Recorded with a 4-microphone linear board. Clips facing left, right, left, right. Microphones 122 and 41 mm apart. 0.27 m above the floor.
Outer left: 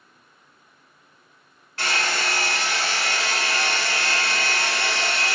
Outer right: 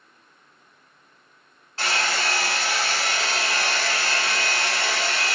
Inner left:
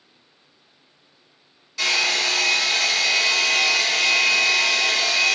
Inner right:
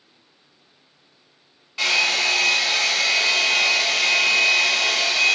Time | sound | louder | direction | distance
1.8 | a hair dryer | even, inner right 1 dB | 30° right (ahead or behind) | 2.5 m